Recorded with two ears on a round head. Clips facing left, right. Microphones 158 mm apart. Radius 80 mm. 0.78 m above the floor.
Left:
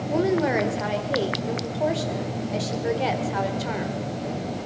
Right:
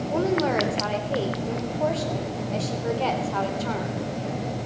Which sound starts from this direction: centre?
A woman speaking, at 0.1 s.